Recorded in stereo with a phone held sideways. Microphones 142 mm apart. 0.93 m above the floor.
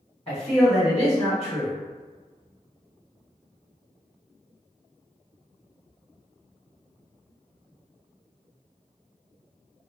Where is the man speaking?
45° left (ahead or behind), 1.3 m.